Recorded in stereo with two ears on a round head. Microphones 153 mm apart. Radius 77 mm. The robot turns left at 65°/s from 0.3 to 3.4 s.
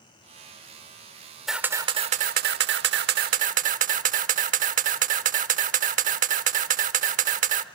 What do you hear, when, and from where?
1.5 s a camera shutter: straight ahead, 0.9 m; by 7.7 s 125° right, 0.9 m